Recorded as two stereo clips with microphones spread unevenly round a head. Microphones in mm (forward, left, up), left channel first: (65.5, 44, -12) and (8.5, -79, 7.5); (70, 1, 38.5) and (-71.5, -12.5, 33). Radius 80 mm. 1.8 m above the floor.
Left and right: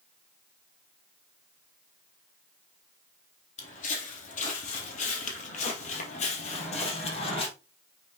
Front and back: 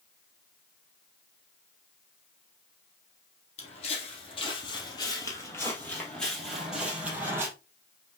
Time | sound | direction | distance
3.6 | footsteps | 40° left | 2.5 m